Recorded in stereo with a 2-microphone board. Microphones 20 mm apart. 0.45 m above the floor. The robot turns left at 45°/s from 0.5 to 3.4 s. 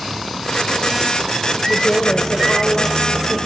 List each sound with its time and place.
1.7 s a woman speaking: 85° left, 1.4 m; by 3.4 s 10° left, 1.4 m